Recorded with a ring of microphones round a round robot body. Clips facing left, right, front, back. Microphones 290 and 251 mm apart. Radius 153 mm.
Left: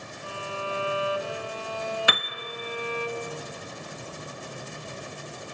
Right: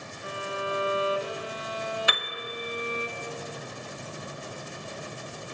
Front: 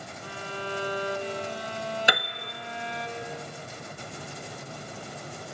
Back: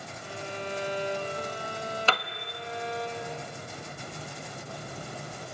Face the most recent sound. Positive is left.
turn(degrees=75)